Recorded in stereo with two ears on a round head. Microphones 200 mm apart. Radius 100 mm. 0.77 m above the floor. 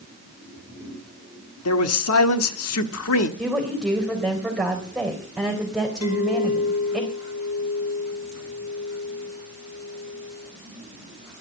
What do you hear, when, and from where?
1.6 s a man speaking: 70° left (ahead or behind), 1.5 m
3.4 s a woman speaking: centre (ahead or behind), 3.5 m
6.0 s a clink: 90° left, 9.5 m